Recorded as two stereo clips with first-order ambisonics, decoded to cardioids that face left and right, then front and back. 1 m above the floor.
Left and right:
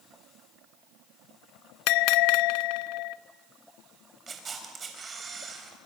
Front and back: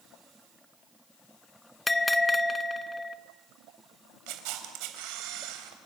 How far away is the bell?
About 0.9 m.